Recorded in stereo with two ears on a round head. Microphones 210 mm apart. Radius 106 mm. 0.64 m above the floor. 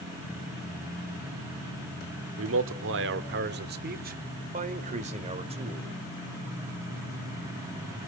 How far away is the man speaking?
About 1.6 m.